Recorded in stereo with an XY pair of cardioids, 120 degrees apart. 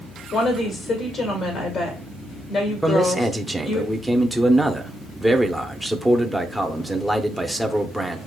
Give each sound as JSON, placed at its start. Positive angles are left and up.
{"t": 0.3, "sound": "a woman speaking", "azimuth_deg": 50, "distance_m": 1.8}
{"t": 2.8, "sound": "a man speaking", "azimuth_deg": 0, "distance_m": 0.8}